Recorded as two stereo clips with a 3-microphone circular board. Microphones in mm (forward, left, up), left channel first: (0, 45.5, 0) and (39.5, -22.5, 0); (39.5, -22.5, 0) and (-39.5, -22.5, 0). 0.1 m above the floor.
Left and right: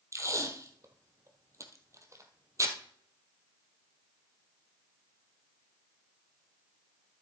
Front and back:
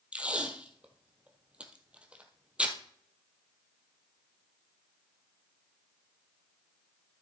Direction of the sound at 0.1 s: 105° right.